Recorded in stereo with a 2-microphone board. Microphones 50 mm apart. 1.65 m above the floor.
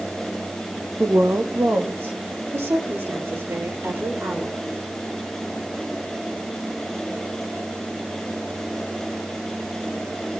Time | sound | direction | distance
1.0 | a woman speaking | 50° right (ahead or behind) | 1.3 m